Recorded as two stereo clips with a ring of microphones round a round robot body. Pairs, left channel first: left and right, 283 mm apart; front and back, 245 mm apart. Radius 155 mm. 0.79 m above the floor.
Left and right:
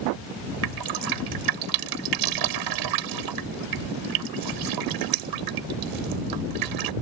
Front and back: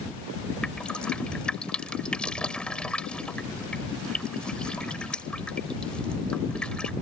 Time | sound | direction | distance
0.6 | dripping | 85° right | ?